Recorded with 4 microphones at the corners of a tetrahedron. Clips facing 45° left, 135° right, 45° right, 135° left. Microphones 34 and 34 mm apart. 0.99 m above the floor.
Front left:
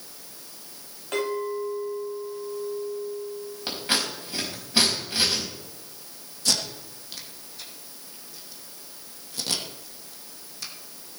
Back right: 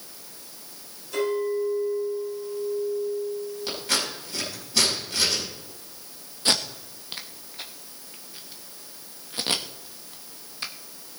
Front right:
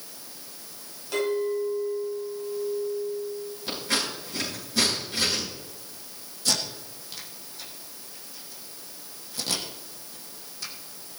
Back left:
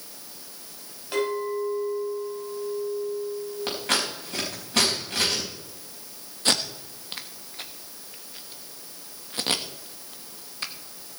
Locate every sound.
1.1 s a clink: 65° left, 4.5 m
3.7 s scissors: 105° left, 4.5 m
6.5 s tape being pulled: 175° left, 1.1 m